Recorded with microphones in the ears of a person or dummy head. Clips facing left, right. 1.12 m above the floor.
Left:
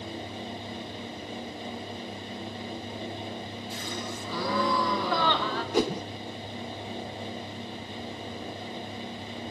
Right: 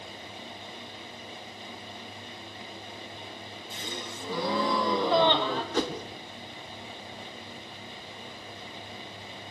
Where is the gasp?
20° right (ahead or behind), 1.3 m.